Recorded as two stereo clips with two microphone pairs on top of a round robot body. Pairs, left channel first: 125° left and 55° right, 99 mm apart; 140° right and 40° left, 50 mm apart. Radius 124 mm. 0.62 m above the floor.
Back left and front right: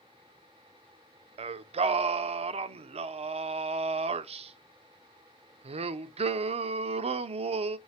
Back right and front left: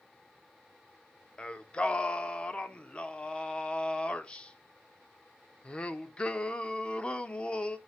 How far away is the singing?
About 0.6 m.